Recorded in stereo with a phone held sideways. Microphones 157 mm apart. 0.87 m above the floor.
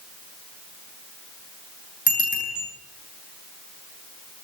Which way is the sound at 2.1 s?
60° left (ahead or behind).